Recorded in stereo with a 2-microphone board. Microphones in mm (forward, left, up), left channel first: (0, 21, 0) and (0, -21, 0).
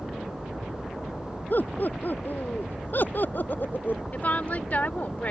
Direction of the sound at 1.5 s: 45° left (ahead or behind).